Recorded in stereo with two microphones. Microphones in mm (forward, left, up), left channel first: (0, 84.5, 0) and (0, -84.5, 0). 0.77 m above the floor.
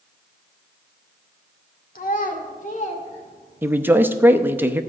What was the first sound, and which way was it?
A child speaking, 60° left (ahead or behind).